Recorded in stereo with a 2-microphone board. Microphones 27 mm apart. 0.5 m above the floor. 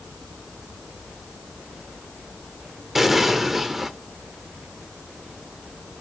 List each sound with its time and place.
3.0 s an explosion: 10° right (ahead or behind), 1.1 m